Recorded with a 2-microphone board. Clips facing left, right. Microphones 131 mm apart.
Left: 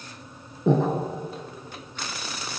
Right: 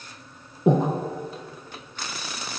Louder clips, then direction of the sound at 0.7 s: Right 1 dB; 15° right (ahead or behind).